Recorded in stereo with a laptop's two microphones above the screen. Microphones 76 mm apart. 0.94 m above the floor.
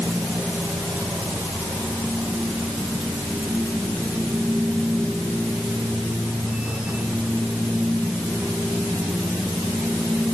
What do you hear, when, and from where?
0.0 s a machine running: 15° right (ahead or behind)